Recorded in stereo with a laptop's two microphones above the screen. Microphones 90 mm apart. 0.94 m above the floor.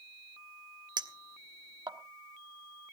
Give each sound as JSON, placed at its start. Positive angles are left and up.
{"t": 1.0, "sound": "a clink", "side_deg": -50, "distance_m": 1.1}